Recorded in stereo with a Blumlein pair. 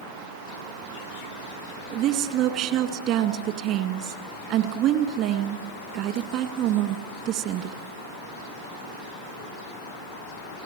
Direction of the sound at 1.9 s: 40° right.